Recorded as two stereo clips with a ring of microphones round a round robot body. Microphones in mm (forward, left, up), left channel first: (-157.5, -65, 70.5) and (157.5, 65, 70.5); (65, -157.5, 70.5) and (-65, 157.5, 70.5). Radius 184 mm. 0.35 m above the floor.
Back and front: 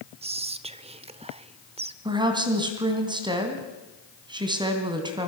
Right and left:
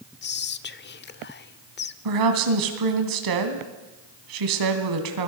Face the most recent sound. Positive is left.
turn(degrees=100)